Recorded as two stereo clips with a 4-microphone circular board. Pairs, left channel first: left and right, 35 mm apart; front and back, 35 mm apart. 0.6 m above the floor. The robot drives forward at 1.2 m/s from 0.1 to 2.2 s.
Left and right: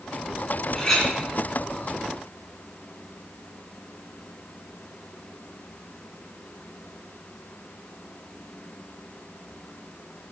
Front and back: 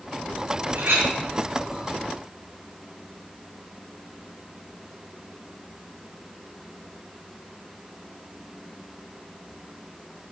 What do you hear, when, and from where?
0.8 s a clink: 170° left, 3.5 m